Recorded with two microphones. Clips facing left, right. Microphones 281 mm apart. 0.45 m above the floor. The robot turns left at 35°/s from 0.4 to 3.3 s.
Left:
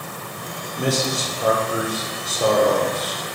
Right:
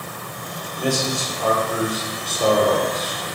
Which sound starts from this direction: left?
A man speaking, at 0.8 s.